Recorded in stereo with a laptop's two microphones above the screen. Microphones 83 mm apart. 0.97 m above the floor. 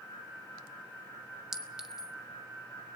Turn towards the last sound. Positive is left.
turn(degrees=-5)  # may be behind; listen again after turning